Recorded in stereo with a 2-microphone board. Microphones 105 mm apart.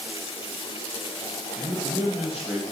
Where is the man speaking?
10° right (ahead or behind), 3.5 m.